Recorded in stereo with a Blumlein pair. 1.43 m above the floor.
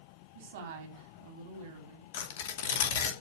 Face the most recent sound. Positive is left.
turn(degrees=55)